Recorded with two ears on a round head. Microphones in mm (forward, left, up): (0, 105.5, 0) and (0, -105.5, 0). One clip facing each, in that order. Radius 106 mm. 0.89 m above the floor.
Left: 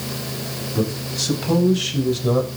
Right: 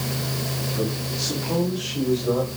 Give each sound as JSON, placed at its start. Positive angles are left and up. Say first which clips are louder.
{"t": 0.8, "sound": "a man speaking", "louder": "left 5 dB", "side_deg": 75, "distance_m": 5.5}